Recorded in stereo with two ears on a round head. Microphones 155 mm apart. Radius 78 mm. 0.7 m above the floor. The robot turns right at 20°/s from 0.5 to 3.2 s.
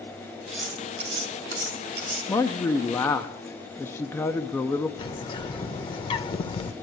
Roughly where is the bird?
Left.